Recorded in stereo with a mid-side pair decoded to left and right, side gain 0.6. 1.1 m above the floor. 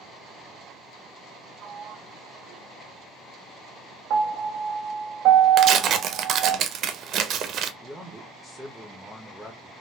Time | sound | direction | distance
1.6 | a sliding door | 55° right | 0.5 m
4.1 | a piano | 65° right | 0.6 m
5.6 | tearing paper | 50° right | 0.5 m
7.8 | a man speaking | straight ahead | 0.8 m